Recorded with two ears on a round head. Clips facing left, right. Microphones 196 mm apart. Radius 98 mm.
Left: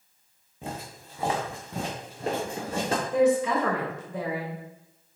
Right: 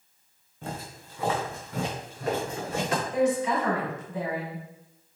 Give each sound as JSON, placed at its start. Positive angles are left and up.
{"t": 0.6, "sound": "footsteps", "side_deg": 15, "distance_m": 2.5}
{"t": 3.1, "sound": "a woman speaking", "side_deg": 70, "distance_m": 3.0}